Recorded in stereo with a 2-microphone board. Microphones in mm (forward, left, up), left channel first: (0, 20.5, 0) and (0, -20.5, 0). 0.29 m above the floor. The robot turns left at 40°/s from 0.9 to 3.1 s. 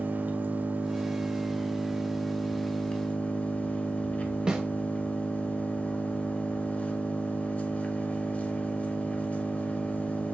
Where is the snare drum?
20° right (ahead or behind), 0.7 m.